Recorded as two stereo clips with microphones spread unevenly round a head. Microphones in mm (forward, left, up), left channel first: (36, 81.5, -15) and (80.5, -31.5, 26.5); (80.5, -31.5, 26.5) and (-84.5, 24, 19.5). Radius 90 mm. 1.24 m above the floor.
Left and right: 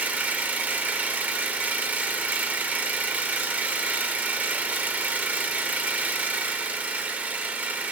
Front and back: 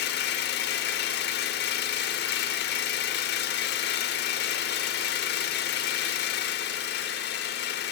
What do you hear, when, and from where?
0.0 s an engine running: 5° right, 1.3 m